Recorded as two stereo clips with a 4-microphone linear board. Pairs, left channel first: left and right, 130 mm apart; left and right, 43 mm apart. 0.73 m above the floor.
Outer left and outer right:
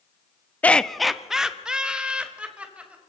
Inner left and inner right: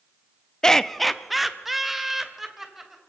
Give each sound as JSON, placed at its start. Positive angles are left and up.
{"t": 0.6, "sound": "laughter", "side_deg": 10, "distance_m": 0.5}